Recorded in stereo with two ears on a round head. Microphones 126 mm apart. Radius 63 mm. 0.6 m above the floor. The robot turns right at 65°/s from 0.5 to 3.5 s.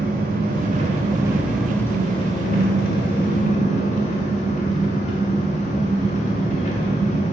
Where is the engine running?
70° right, 1.8 m; by 7.3 s 125° left, 1.8 m.